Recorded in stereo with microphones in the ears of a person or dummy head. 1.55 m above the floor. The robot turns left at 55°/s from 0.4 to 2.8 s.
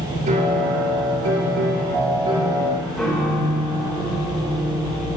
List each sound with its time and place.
0.3 s a piano: 45° right, 2.5 m; by 5.2 s straight behind, 2.5 m